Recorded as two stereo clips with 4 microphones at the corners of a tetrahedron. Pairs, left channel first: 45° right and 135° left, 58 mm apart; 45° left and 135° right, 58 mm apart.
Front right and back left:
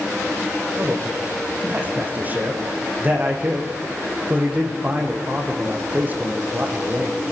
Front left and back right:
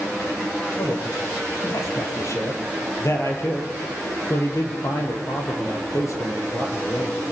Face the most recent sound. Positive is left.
turn(degrees=75)